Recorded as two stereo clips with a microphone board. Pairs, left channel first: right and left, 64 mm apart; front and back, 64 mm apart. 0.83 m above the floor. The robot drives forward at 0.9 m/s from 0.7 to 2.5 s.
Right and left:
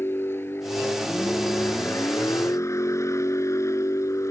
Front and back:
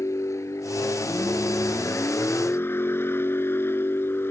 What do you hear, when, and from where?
0.0 s a vehicle: 40° right; by 4.3 s 50° right